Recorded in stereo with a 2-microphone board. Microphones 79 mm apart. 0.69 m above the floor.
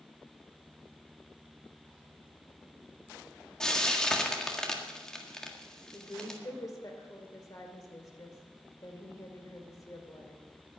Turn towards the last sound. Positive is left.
turn(degrees=40)  # may be behind; listen again after turning